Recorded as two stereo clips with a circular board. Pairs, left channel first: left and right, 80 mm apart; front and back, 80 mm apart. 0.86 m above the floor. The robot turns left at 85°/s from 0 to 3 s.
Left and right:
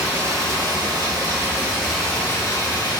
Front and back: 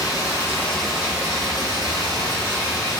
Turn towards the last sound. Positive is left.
turn(degrees=90)